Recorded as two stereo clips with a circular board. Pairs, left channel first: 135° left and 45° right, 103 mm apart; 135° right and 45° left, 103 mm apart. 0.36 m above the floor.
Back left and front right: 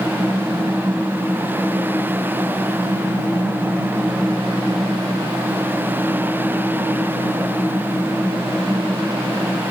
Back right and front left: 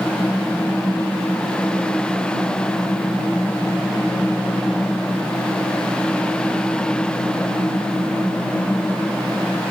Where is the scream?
I don't hear a scream.